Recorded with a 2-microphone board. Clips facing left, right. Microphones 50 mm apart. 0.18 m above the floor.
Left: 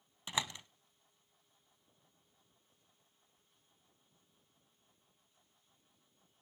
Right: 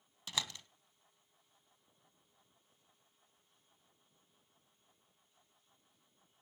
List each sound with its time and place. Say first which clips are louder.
0.3 s a door slam: left 3 dB; 25° left (ahead or behind), 0.7 m